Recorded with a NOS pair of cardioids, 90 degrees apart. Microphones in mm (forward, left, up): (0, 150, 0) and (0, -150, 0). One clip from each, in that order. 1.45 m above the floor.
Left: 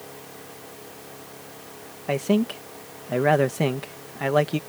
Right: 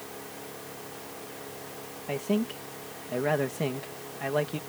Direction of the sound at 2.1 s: 50° left.